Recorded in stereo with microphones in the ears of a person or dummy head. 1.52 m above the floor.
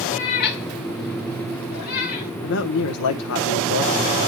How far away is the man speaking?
About 1.1 m.